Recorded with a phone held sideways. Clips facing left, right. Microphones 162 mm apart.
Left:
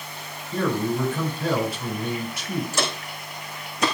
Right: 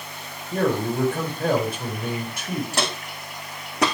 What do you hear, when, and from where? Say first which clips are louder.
0.5 s a man speaking: right 1 dB; 55° right (ahead or behind), 4.5 m
2.7 s footsteps: even; 65° right (ahead or behind), 4 m; by 3.9 s 75° right (ahead or behind), 4 m